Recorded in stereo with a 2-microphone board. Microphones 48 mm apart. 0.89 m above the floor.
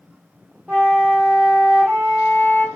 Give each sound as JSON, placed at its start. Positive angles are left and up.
{"t": 0.7, "sound": "a flute", "side_deg": -35, "distance_m": 0.8}